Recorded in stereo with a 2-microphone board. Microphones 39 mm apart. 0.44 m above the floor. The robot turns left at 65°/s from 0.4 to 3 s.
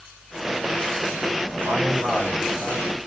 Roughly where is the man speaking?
Behind right.